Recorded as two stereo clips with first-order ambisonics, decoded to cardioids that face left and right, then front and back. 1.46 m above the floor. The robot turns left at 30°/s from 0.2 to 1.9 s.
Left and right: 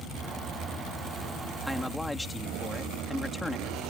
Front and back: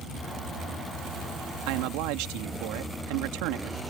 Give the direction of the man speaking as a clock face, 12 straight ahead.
6 o'clock.